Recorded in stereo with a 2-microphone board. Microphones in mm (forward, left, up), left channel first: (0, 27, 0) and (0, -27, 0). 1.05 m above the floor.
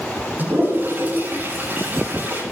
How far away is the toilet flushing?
About 9.5 m.